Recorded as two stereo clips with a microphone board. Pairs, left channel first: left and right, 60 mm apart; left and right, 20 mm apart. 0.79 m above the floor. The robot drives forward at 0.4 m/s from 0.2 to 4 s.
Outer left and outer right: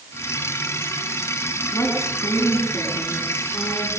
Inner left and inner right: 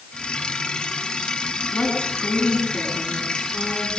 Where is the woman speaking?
50° left (ahead or behind), 7 m; by 3.9 s 45° left (ahead or behind), 7.5 m.